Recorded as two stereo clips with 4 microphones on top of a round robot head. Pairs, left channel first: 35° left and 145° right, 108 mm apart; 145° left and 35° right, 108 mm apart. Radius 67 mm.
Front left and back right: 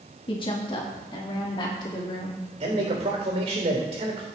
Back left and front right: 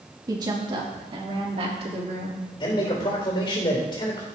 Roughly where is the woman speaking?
Ahead.